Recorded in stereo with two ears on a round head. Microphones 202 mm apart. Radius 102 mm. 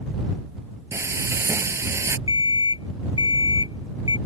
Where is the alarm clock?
25° left (ahead or behind).